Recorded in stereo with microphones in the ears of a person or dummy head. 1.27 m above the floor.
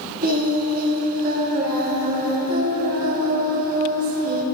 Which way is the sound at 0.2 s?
45° right (ahead or behind).